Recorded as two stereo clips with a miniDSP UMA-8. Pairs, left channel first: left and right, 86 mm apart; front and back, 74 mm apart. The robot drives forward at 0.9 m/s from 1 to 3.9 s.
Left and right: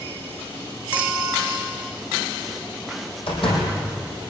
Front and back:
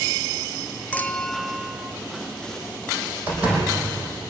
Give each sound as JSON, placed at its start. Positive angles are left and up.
{"t": 0.9, "sound": "a clink", "azimuth_deg": -30, "distance_m": 1.0}
{"t": 3.3, "sound": "a door slam", "azimuth_deg": 105, "distance_m": 6.5}